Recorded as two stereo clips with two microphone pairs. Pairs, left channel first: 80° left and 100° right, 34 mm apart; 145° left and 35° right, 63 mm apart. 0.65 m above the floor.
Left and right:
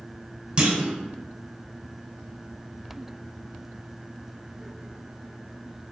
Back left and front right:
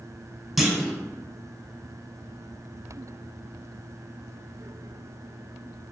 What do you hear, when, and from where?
0.6 s a clunk: 120° right, 0.5 m